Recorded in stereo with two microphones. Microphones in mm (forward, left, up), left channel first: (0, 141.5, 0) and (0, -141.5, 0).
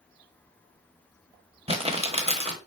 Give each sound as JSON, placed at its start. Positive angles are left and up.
{"t": 1.7, "sound": "crumpling", "side_deg": -20, "distance_m": 1.1}